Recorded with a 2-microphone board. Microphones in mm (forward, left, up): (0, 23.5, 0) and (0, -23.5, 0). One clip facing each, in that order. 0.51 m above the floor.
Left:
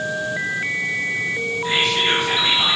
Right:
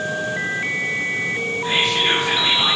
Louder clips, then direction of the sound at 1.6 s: Even; 50° right (ahead or behind).